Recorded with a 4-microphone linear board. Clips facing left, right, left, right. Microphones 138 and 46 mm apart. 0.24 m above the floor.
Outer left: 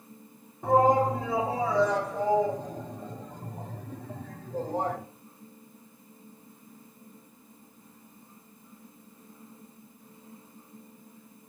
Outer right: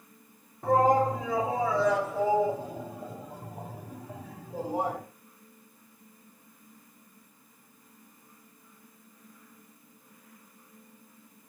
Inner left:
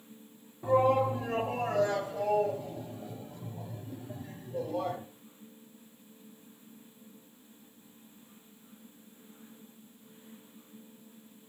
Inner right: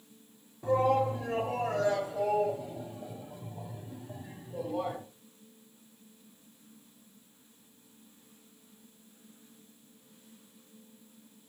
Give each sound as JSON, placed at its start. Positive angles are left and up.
{"t": 0.6, "sound": "a shout", "side_deg": 0, "distance_m": 1.9}